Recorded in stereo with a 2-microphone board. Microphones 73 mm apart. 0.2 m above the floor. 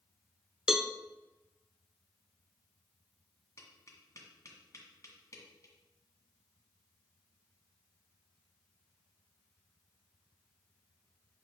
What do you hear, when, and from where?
0.7 s a cowbell: 5° right (ahead or behind), 0.6 m
3.6 s tapping: 45° left (ahead or behind), 1.8 m